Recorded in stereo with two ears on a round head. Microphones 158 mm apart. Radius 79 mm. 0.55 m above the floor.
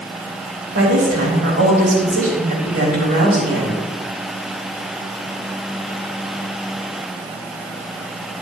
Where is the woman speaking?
65° right (ahead or behind), 3.5 m.